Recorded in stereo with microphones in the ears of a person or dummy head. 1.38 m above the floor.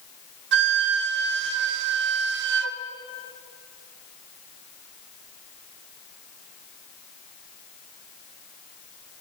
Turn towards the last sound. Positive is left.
turn(degrees=-60)  # may be behind; listen again after turning